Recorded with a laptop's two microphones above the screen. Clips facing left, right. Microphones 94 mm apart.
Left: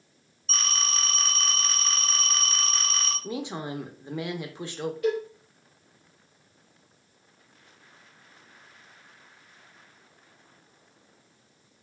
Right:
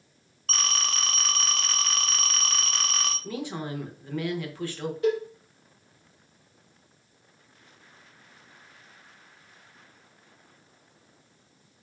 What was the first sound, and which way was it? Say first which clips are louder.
A phone ringing: right 1 dB; 75° right (ahead or behind).